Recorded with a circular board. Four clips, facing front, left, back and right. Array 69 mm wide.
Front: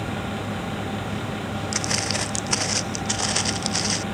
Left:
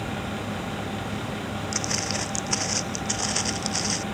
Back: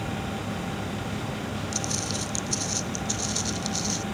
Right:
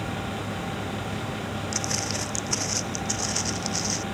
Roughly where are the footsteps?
Ahead.